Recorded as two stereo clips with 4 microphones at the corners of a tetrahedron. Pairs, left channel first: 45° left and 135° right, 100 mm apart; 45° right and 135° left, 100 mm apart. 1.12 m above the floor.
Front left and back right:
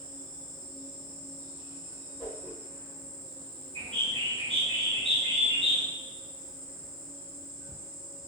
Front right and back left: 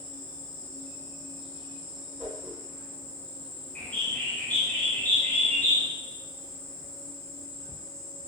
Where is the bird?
115° right, 0.7 m.